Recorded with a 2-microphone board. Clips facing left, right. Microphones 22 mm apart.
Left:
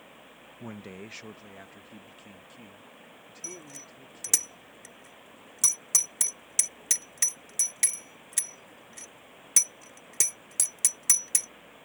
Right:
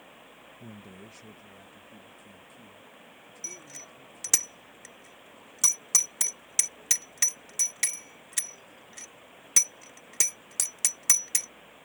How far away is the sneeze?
I don't hear a sneeze.